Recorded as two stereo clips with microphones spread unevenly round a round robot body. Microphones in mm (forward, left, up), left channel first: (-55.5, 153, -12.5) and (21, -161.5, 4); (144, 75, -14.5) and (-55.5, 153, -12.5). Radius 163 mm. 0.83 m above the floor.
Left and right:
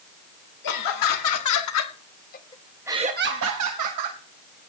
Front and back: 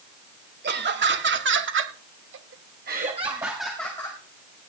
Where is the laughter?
125° left, 3.5 m; by 4.2 s 100° right, 2.5 m.